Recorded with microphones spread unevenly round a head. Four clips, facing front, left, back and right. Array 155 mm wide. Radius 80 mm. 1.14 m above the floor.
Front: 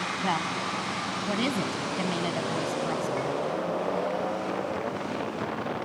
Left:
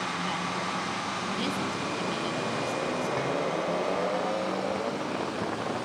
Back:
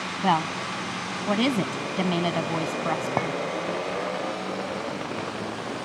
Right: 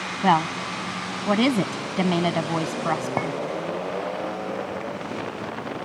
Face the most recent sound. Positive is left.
turn(degrees=-140)